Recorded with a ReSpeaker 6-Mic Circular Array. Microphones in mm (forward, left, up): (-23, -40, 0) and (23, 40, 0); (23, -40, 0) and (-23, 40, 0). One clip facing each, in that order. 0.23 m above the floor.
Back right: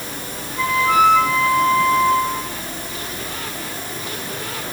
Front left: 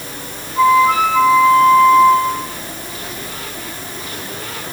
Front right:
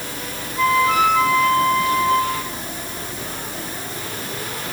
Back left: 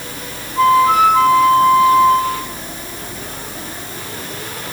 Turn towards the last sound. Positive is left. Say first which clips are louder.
# front left 5 dB, back left 6 dB
turn(degrees=90)